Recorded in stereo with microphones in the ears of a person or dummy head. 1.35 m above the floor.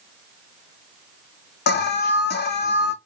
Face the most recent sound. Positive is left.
turn(degrees=50)  # may be behind; listen again after turning